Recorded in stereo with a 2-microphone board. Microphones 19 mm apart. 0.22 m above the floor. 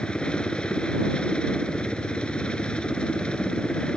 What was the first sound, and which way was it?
A helicopter, 65° left (ahead or behind).